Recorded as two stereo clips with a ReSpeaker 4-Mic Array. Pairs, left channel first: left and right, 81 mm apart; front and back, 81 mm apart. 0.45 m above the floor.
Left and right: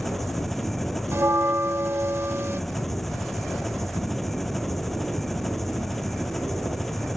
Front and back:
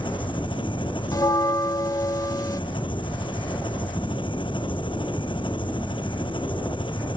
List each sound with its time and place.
0.0 s an engine running: 5° left
1.1 s a bell: 35° right